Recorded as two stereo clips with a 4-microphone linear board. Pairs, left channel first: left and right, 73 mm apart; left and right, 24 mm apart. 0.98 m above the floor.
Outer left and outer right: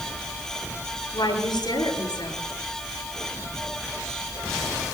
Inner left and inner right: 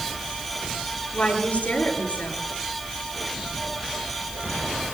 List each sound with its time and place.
1.1 s a woman speaking: 80° left, 9 m